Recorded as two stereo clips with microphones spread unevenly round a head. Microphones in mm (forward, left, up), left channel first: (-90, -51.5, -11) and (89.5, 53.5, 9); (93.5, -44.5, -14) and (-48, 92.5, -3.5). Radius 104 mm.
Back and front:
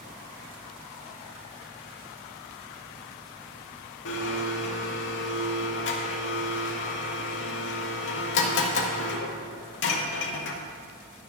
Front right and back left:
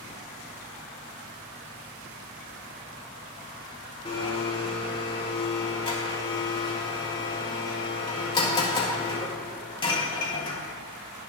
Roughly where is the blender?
Behind right.